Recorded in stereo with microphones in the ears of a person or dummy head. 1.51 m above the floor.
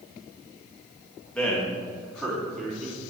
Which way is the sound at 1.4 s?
10° left (ahead or behind).